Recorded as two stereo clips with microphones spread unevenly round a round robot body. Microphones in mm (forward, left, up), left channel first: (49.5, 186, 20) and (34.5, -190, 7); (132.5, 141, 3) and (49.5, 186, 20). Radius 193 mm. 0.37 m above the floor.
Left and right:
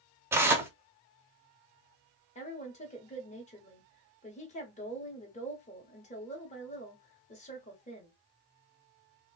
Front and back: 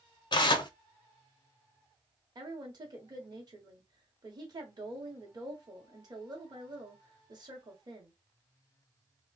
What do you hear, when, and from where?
0.3 s tearing paper: 10° right, 0.5 m
2.4 s a woman speaking: 150° left, 1.0 m